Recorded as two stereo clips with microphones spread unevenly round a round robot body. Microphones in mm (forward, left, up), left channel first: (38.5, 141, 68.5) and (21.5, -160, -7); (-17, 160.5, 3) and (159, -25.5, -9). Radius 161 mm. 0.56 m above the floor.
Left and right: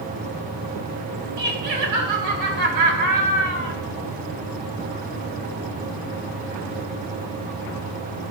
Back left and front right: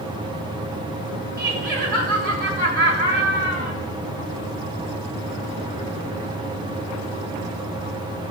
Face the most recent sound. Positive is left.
turn(degrees=-105)